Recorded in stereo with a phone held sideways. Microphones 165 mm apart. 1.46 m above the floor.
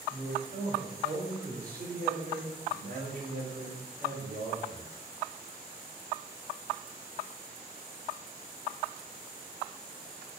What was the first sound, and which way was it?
A man speaking, 85° right.